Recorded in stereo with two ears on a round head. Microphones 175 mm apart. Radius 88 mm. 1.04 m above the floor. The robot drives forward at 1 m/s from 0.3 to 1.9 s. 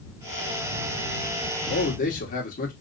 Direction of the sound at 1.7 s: 50° left (ahead or behind).